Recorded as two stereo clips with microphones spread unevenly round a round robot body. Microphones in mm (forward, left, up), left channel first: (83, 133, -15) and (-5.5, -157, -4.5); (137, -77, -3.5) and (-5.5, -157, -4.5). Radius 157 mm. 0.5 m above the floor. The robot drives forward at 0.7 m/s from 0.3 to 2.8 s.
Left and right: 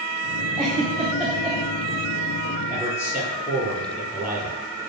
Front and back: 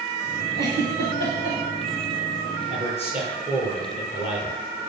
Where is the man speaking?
140° left, 10 m.